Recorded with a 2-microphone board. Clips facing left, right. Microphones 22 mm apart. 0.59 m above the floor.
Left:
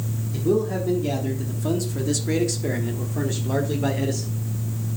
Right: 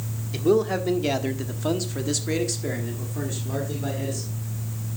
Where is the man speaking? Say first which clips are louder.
Right 2 dB; 55° right (ahead or behind), 1.5 m; by 4.3 s 30° left (ahead or behind), 1.9 m.